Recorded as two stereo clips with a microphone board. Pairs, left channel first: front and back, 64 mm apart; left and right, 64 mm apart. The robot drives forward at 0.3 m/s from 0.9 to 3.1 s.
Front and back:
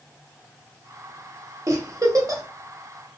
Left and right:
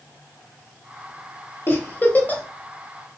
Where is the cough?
No cough in this recording.